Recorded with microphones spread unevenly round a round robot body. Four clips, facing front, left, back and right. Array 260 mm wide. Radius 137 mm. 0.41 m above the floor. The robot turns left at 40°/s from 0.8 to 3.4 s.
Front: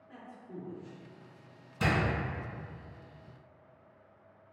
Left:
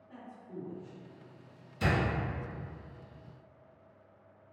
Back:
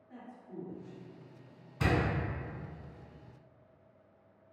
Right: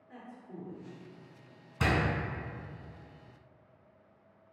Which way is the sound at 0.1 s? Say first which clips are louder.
Left 1 dB, front 1 dB; straight ahead.